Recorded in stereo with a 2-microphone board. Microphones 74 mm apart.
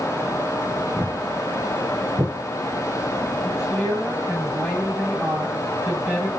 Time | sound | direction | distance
1.0 | footsteps | 35° right (ahead or behind) | 3.5 m
3.4 | a woman speaking | 15° right (ahead or behind) | 6 m